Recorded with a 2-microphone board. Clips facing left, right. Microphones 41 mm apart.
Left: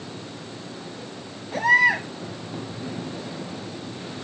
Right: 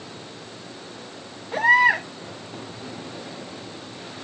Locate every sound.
1.5 s a baby crying: 30° right (ahead or behind), 8 m